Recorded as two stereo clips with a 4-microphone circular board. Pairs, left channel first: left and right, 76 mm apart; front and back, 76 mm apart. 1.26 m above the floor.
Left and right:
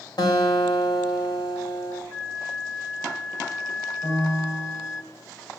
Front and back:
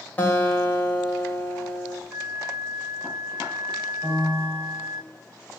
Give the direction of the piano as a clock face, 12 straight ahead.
8 o'clock.